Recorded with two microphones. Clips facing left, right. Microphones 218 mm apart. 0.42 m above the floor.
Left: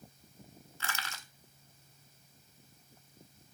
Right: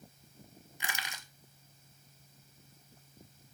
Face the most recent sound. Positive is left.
turn(degrees=-15)  # may be behind; listen again after turning